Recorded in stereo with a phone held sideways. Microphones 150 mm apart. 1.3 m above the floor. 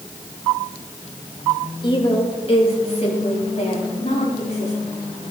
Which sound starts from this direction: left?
A woman speaking, at 1.8 s.